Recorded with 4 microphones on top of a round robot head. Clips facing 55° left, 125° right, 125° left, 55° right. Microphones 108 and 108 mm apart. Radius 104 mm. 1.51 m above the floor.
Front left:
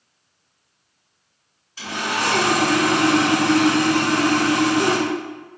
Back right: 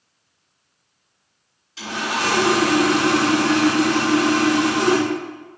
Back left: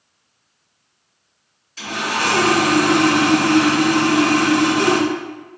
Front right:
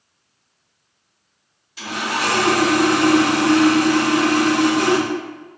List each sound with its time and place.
1.8 s sawing: 130° right, 1.6 m